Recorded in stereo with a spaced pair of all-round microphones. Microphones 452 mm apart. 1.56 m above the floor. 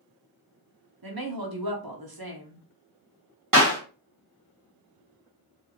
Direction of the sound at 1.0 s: 50° right (ahead or behind).